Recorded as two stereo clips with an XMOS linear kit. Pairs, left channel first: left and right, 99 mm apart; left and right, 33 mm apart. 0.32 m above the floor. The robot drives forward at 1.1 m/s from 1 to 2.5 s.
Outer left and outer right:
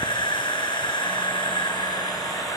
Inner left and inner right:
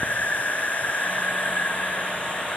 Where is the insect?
60° left (ahead or behind), 1.5 m; by 2.6 s 40° left (ahead or behind), 2 m.